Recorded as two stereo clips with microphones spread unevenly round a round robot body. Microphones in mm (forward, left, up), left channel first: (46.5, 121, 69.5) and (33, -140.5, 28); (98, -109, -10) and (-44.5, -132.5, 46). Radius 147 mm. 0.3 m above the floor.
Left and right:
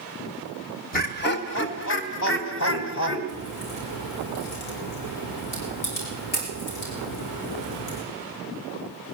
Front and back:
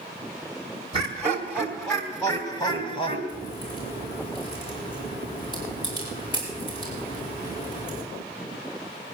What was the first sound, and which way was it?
Laughter, 120° left.